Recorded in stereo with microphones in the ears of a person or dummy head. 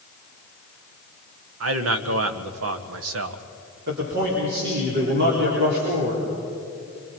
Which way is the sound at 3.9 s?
65° right (ahead or behind).